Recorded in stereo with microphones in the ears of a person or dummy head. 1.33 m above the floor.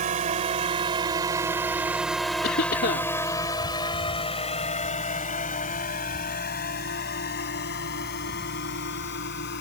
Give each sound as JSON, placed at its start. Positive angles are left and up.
{"t": 0.0, "sound": "a drone", "side_deg": -35}
{"t": 2.4, "sound": "a cough", "side_deg": 50}